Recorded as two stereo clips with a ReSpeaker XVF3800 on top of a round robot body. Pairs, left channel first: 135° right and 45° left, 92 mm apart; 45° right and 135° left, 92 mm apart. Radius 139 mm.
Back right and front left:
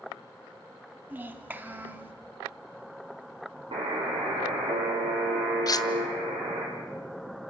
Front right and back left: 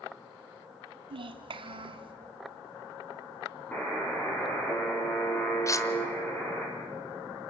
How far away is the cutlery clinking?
About 1.1 m.